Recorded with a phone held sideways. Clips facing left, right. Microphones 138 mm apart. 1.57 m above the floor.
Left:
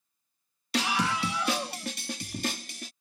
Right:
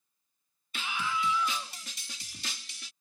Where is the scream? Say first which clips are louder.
Left 6 dB; 85° left; by 2.9 s 55° left (ahead or behind).